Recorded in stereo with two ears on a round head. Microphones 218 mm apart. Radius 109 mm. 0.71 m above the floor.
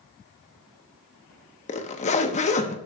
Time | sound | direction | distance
1.7 | a zipper | 30° left (ahead or behind) | 1.0 m